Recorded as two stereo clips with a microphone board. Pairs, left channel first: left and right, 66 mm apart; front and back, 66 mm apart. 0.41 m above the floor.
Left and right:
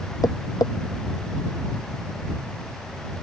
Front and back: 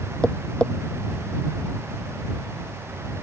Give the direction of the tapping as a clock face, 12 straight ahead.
10 o'clock.